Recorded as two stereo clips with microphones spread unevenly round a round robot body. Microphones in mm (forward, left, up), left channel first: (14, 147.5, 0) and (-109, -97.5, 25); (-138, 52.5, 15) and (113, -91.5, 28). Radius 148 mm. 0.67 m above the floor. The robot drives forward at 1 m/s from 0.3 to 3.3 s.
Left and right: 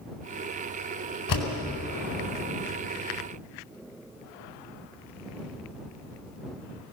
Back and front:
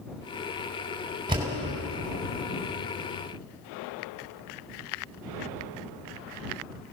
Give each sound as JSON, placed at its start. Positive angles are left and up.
{"t": 1.3, "sound": "a door slam", "azimuth_deg": 45, "distance_m": 4.5}